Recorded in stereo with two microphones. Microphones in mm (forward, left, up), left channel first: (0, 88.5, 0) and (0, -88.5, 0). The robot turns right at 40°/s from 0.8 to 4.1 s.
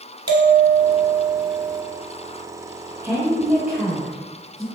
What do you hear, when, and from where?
0.3 s a bell: 25° right, 0.8 m; by 1.8 s 15° left, 0.8 m
3.0 s a woman speaking: 20° right (ahead or behind), 1.2 m; by 4.7 s centre (ahead or behind), 1.2 m